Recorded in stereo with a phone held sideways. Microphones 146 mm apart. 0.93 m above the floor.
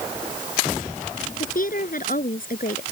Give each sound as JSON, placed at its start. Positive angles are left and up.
{"t": 1.4, "sound": "a woman speaking", "side_deg": 70}